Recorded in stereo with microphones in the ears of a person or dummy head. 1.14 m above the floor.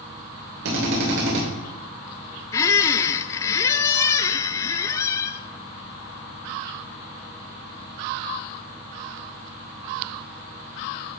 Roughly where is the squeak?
Centre.